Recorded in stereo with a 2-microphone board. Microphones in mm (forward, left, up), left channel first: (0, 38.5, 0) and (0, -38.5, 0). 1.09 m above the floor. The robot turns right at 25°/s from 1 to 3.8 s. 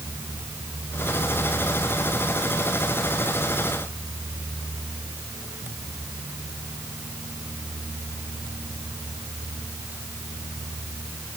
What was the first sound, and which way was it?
Only background noise.